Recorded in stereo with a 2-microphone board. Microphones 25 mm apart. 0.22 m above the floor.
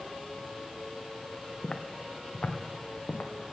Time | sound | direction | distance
1.6 | footsteps | 25° left (ahead or behind) | 1.1 m